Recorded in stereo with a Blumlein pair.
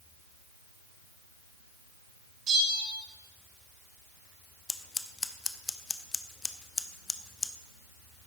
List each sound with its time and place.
2.5 s a bell: 20° right, 2.5 m
4.7 s scissors: 10° left, 0.7 m